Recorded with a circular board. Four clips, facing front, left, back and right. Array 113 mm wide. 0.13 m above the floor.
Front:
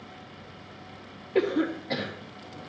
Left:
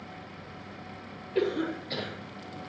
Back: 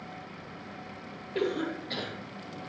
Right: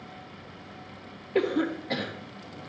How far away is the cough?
About 3 m.